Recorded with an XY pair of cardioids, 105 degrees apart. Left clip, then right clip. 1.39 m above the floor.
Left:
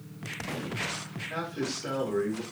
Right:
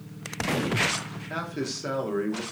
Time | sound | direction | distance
1.3 | a man speaking | 40° right | 0.9 m